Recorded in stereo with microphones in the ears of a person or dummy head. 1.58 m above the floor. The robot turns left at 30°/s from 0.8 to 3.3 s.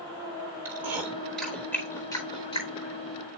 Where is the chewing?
10° right (ahead or behind), 1.2 m; by 2.9 s 35° left (ahead or behind), 1.2 m.